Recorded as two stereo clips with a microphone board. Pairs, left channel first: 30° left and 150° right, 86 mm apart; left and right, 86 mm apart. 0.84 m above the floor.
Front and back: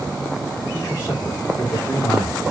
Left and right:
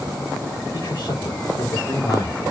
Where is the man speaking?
75° left, 2.5 m.